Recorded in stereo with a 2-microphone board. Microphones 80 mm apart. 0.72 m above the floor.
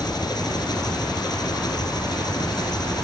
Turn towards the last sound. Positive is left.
turn(degrees=60)  # may be behind; listen again after turning